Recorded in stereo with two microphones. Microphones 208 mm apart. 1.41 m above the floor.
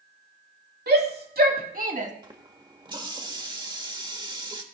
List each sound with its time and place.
0.9 s a shout: 50° right (ahead or behind), 3.5 m; by 2.1 s 35° right (ahead or behind), 1.8 m
2.2 s a running tap: 20° right (ahead or behind), 1.3 m